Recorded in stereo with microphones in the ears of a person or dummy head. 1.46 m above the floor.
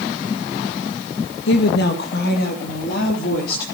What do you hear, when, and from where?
1.5 s a woman speaking: 70° left (ahead or behind), 1.6 m; by 3.6 s 55° left (ahead or behind), 4 m